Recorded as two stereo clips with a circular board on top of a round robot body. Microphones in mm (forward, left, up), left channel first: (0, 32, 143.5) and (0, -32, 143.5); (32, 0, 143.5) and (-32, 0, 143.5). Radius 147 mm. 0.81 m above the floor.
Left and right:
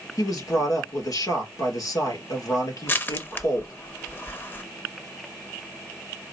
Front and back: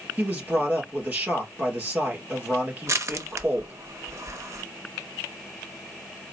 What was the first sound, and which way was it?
A man speaking, 110° left.